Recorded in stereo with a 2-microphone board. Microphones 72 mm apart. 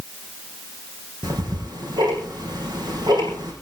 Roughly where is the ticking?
Right.